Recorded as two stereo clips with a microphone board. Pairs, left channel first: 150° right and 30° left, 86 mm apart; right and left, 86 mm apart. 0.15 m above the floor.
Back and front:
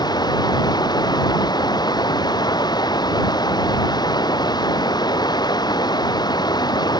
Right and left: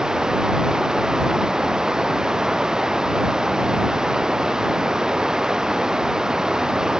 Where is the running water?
175° left.